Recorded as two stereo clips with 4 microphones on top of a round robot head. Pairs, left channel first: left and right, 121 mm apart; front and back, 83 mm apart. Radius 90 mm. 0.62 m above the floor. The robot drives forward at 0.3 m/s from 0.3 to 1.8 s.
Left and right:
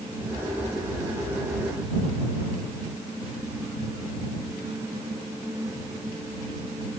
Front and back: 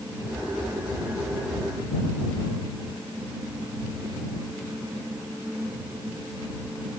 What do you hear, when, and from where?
Only background noise.